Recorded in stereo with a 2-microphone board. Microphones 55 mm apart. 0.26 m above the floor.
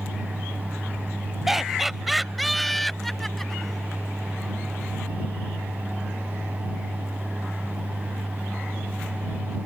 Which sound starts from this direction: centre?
Laughter, at 1.5 s.